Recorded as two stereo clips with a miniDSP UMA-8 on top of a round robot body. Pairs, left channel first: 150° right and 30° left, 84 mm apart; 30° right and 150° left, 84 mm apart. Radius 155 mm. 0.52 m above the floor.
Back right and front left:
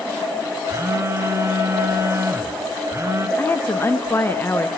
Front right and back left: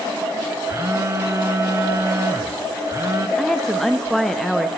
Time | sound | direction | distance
0.7 | a phone buzzing | 90° left | 1.2 m
3.4 | a woman speaking | 115° right | 1.3 m